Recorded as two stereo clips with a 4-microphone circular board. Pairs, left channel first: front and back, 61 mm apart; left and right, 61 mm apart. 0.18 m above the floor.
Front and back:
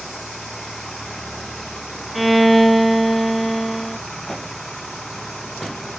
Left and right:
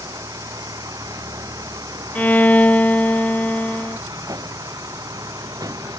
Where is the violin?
90° left.